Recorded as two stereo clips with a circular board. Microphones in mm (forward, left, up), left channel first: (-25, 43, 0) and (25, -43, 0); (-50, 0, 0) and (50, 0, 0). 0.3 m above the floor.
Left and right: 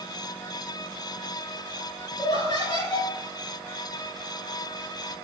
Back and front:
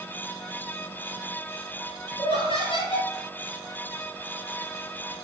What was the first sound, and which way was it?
Laughter, 160° left.